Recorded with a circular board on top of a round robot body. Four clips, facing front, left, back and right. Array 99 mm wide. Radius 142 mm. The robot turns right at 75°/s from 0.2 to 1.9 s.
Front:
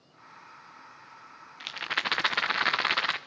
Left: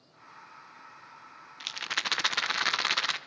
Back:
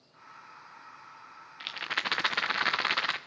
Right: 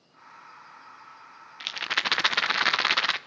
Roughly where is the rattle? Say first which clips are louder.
Right 5 dB, front 2 dB; right.